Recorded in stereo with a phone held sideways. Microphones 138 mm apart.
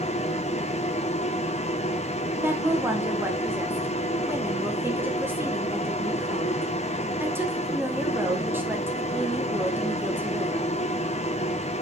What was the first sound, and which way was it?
A machine running, 50° left (ahead or behind).